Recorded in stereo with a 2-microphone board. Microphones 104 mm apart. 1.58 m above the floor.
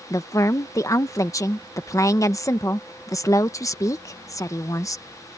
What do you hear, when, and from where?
0.1 s a woman speaking: 30° left (ahead or behind)